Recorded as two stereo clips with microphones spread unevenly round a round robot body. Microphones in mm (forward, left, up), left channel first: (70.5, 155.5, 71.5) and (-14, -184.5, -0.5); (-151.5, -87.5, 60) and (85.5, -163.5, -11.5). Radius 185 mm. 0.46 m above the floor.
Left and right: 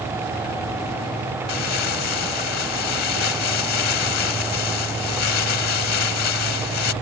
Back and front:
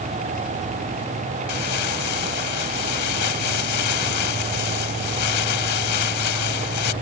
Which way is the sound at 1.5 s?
130° left.